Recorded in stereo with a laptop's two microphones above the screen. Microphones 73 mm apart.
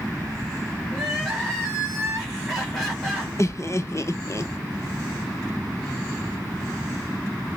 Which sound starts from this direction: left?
Laughter, at 3.4 s.